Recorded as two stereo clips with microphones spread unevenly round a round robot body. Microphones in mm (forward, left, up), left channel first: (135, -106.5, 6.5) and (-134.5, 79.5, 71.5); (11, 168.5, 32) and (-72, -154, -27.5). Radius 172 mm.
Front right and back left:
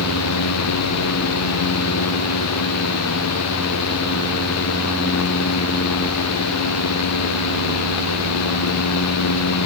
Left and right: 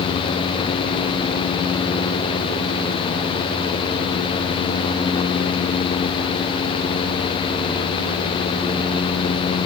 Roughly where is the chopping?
No chopping in this recording.